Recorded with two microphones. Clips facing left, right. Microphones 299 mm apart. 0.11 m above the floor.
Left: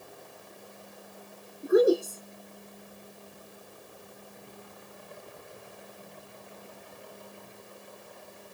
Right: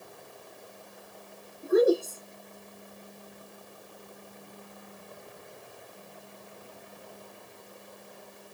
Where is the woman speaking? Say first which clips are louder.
Left 1 dB; 10° left (ahead or behind), 1.5 m.